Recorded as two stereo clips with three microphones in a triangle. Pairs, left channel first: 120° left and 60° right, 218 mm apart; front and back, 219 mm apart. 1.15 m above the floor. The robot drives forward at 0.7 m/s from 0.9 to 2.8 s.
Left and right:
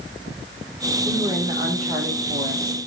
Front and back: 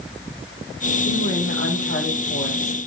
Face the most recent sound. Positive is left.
turn(degrees=15)